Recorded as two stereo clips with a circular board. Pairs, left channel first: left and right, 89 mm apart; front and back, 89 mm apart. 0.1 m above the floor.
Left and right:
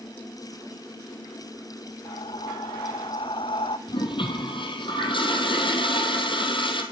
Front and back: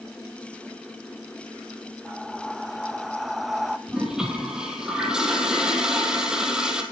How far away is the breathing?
About 0.9 m.